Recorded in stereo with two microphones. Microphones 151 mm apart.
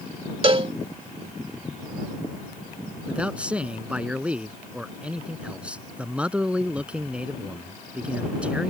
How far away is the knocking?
I don't hear knocking.